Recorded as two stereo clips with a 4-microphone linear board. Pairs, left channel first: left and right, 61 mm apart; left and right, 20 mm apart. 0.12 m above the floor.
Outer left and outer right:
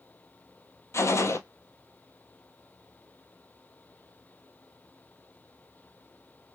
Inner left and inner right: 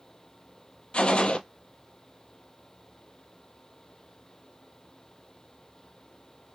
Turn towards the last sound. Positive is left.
turn(degrees=55)  # may be behind; listen again after turning